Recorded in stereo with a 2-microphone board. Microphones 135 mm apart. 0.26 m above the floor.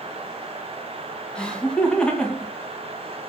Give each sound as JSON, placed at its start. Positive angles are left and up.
{"t": 1.4, "sound": "laughter", "side_deg": 5, "distance_m": 2.0}